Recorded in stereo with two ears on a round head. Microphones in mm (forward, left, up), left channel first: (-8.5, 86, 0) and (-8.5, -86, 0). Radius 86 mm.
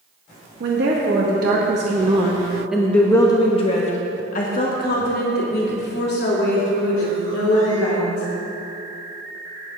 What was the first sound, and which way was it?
A woman speaking, 65° right (ahead or behind).